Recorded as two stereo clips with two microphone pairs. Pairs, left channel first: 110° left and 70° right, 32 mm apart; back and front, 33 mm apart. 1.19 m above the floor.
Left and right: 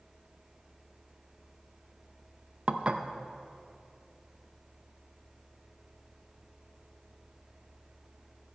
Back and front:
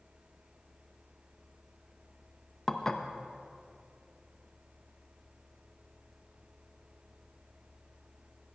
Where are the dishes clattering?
110° right, 0.5 m.